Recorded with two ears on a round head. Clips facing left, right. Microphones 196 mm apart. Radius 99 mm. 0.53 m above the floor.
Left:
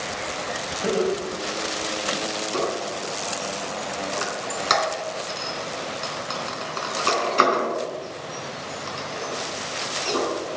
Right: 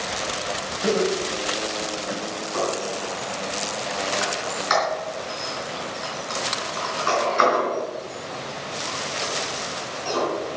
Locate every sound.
0.8 s laughter: 5° left (ahead or behind), 3 m; by 2.2 s 5° right (ahead or behind), 2 m
2.5 s a squeak: 45° left (ahead or behind), 3.5 m